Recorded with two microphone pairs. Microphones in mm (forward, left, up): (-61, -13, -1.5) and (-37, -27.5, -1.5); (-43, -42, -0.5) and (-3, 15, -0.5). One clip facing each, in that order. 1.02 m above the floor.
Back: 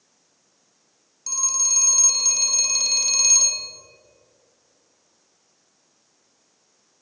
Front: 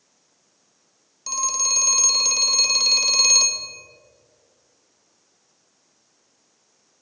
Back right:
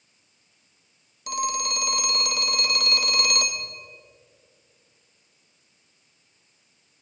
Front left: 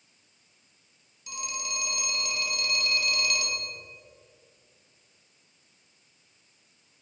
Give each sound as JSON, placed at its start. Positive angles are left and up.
{"t": 1.3, "sound": "a phone ringing", "azimuth_deg": -100, "distance_m": 0.9}